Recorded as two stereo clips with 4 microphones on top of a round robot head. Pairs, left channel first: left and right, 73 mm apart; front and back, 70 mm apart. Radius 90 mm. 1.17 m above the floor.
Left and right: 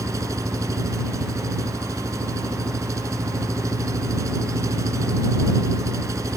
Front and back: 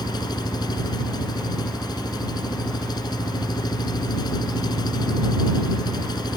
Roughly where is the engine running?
Ahead right.